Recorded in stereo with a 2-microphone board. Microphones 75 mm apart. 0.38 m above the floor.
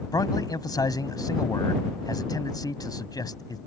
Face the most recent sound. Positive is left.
turn(degrees=60)  # may be behind; listen again after turning